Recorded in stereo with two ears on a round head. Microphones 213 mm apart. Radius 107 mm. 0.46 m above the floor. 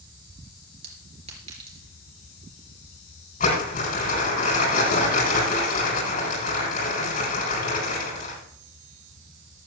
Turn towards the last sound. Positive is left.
turn(degrees=35)  # may be behind; listen again after turning